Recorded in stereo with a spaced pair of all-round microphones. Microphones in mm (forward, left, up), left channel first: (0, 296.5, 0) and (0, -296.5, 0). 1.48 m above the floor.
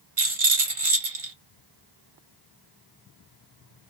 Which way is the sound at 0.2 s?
60° right (ahead or behind).